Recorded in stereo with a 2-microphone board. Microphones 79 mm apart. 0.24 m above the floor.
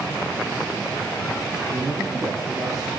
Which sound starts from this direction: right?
A man speaking, at 1.7 s.